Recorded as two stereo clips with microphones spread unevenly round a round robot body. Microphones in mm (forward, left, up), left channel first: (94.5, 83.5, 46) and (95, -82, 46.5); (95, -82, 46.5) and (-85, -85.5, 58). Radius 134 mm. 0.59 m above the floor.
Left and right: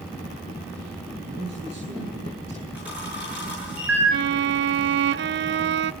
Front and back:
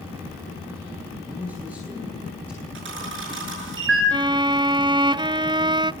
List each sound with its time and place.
1.2 s a man speaking: 85° right, 9 m; by 2.6 s 80° right, 10.5 m
2.8 s a camera shutter: 175° right, 8 m
4.1 s a violin: 110° right, 0.6 m